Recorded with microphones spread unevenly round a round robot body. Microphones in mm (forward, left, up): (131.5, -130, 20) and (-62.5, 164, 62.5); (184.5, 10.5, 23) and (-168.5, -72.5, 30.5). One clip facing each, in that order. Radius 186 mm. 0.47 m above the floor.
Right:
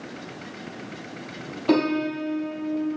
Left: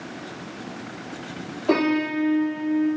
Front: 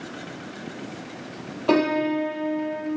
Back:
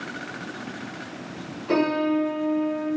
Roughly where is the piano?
Ahead.